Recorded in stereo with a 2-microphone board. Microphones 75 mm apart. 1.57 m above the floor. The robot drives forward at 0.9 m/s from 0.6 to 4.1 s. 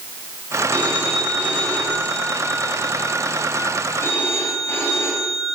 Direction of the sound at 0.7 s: 20° left (ahead or behind).